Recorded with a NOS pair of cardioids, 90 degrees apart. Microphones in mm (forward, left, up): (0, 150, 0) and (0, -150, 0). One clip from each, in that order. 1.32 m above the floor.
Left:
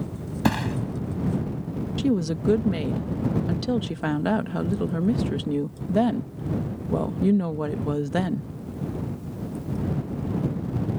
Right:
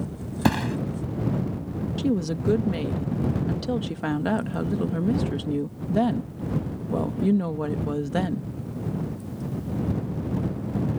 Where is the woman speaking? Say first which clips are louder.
Left 1 dB; 20° left.